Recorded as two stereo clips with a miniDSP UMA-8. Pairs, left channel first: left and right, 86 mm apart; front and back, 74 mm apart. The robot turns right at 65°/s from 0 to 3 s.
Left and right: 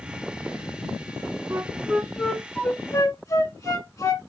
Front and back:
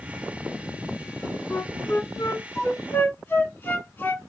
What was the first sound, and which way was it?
A flute, 45° right.